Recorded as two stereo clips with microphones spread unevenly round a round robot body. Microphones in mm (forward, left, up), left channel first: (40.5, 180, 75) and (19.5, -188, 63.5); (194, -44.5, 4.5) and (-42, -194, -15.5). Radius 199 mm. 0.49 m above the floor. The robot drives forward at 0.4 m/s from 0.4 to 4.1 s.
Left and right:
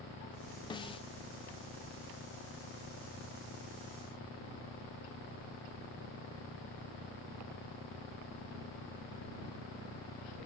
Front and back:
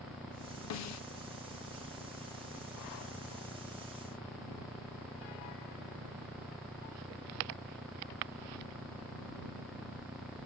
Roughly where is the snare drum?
Ahead.